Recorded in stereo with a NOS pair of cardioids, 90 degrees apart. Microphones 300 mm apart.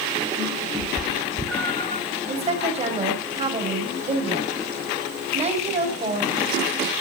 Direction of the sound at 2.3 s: 20° right.